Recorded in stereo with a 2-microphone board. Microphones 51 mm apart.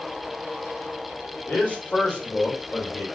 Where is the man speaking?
25° left (ahead or behind), 1.9 m.